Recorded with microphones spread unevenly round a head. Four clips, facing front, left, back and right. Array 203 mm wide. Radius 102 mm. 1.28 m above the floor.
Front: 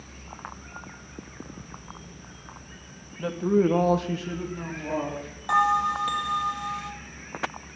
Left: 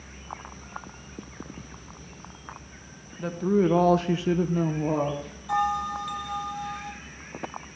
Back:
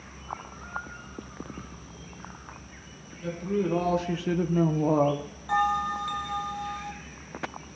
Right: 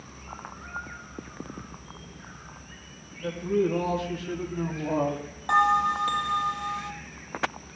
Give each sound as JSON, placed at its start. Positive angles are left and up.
{"t": 3.2, "sound": "a woman speaking", "azimuth_deg": 45, "distance_m": 1.8}
{"t": 5.5, "sound": "a bell", "azimuth_deg": -45, "distance_m": 1.6}